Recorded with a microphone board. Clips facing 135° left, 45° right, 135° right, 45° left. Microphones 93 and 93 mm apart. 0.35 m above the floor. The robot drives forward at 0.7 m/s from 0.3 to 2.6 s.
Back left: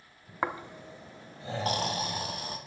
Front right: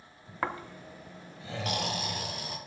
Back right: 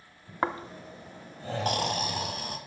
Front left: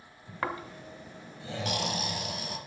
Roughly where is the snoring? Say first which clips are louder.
Back left 1 dB, back right 4 dB; behind.